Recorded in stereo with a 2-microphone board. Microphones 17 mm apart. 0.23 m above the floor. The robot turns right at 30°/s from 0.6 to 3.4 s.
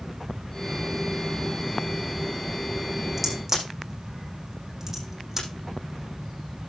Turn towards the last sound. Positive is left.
turn(degrees=-25)  # may be behind; listen again after turning